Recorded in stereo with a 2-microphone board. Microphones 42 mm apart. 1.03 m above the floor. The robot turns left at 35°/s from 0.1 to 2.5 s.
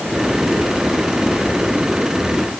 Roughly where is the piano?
I don't hear a piano.